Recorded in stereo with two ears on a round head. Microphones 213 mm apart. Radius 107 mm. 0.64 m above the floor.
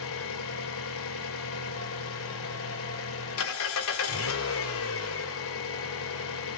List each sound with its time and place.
0.0 s an engine running: 65° left (ahead or behind), 2.5 m